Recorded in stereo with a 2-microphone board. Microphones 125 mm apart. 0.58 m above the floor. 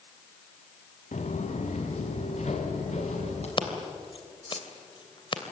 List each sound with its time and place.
1.1 s footsteps: 70° left (ahead or behind), 3 m; by 3.5 s 65° left (ahead or behind), 6 m
3.6 s scissors: 45° left (ahead or behind), 2.5 m